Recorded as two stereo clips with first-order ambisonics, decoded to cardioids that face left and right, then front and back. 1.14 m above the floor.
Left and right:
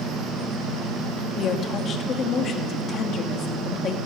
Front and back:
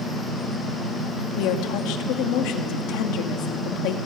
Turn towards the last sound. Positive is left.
turn(degrees=30)